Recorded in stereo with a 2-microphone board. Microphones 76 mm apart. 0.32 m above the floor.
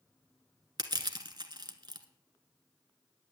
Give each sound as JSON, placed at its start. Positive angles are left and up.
{"t": 0.8, "sound": "crushing", "side_deg": -65, "distance_m": 1.1}